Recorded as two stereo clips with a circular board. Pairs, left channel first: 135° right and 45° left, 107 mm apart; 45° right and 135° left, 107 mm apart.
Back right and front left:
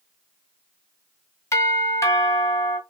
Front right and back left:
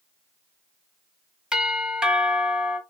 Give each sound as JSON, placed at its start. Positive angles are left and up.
{"t": 1.5, "sound": "a doorbell", "azimuth_deg": -150, "distance_m": 1.5}